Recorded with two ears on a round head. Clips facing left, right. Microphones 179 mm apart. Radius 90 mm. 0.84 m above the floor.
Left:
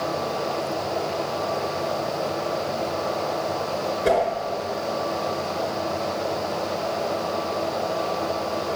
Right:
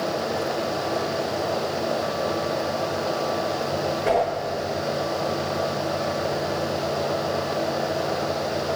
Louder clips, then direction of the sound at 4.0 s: Left 1 dB; 40° left (ahead or behind).